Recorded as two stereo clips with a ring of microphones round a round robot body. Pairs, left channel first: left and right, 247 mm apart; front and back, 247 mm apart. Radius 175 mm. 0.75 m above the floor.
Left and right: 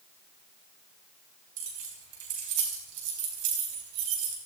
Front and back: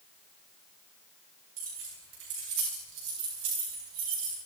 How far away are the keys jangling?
About 4 m.